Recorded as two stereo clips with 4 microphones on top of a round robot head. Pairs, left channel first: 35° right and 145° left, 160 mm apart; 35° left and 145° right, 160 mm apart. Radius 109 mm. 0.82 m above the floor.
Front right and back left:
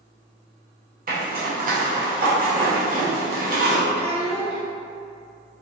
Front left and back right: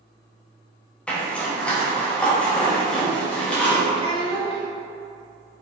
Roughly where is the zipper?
Behind left.